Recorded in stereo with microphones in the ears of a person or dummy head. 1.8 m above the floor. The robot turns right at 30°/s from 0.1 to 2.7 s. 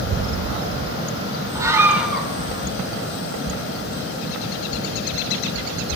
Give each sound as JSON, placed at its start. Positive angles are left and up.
{"t": 1.6, "sound": "a scream", "side_deg": -20, "distance_m": 3.0}